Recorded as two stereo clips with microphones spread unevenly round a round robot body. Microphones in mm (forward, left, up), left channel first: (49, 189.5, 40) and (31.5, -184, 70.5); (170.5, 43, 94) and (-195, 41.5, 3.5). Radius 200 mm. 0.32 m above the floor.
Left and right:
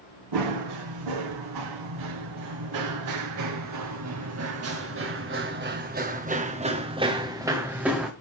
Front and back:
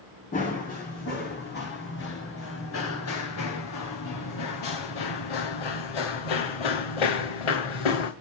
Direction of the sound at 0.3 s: 70° right.